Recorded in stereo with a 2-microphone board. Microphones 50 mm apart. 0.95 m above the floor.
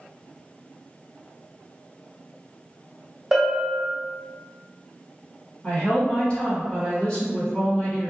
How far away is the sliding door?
No sliding door in this recording.